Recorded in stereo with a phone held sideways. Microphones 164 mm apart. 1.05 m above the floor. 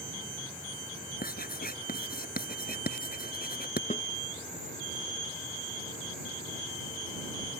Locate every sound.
1.2 s writing: 65° left (ahead or behind)
3.9 s a snare drum: 45° left (ahead or behind)